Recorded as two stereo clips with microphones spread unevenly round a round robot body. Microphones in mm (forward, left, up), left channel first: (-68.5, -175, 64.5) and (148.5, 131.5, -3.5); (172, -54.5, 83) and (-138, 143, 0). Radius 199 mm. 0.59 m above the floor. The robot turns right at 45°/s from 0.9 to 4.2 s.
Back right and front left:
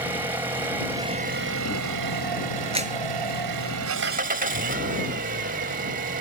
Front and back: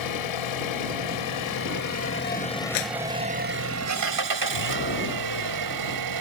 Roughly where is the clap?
Ahead.